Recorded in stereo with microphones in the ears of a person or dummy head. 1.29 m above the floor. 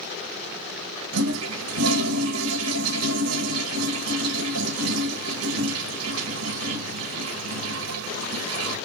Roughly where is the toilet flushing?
Right.